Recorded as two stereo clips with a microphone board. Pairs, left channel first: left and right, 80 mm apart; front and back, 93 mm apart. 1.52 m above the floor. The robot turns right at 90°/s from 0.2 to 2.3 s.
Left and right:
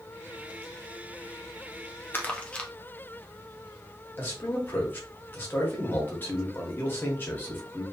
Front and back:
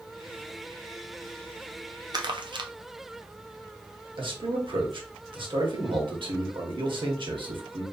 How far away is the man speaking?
About 1.2 m.